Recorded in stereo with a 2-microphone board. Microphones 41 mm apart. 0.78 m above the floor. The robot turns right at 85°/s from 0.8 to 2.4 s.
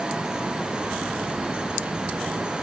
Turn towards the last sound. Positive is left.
No sound to turn to.